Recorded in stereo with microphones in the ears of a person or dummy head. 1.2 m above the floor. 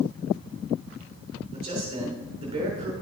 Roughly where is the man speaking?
Right.